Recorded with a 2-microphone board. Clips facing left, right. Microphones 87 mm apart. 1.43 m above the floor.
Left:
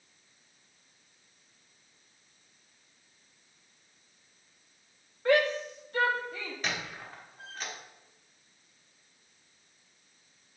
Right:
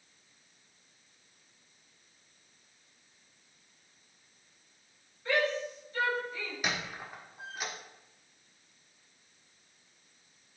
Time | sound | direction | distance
5.2 | a shout | 65° left (ahead or behind) | 1.8 m
6.6 | a squeak | 10° right (ahead or behind) | 1.4 m